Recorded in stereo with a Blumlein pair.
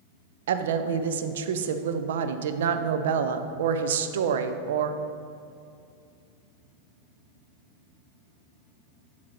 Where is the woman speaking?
60° right, 0.5 m.